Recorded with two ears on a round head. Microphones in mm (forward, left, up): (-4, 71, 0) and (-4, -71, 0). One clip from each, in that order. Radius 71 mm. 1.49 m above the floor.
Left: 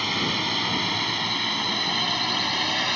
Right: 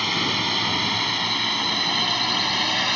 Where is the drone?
10° right (ahead or behind).